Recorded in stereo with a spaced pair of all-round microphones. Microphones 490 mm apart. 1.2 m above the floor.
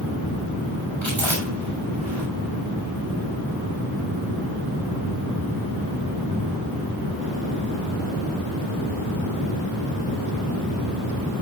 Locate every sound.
1.0 s chewing: 70° right (ahead or behind), 6 m